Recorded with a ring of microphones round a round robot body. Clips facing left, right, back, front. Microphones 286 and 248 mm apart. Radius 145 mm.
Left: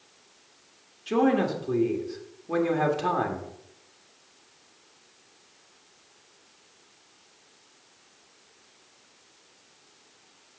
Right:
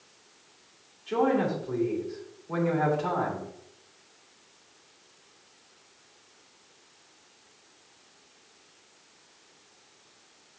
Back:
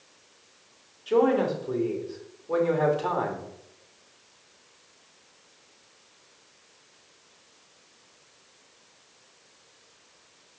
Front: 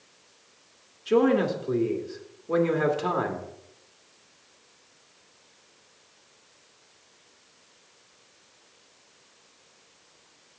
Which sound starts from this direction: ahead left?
A man speaking, at 1.1 s.